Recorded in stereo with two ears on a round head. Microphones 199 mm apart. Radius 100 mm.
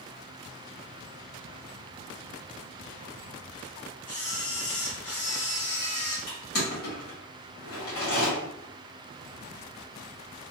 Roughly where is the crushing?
Left.